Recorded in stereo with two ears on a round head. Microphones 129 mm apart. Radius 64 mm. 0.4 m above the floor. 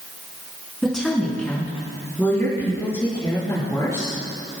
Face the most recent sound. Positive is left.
turn(degrees=20)  # may be behind; listen again after turning